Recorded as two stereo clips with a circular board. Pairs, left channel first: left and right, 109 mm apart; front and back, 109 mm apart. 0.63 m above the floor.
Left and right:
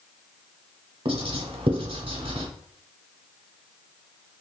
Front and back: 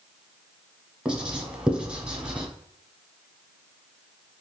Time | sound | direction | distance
1.1 | writing | 100° right | 0.8 m